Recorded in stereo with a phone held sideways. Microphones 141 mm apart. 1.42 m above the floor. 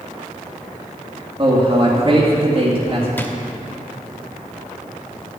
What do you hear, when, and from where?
1.4 s a man speaking: 35° right (ahead or behind), 2.5 m
3.2 s a drawer: 15° left (ahead or behind), 1.2 m